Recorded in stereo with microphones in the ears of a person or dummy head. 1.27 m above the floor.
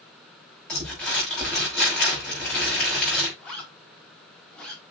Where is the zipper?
5° left (ahead or behind), 4 m.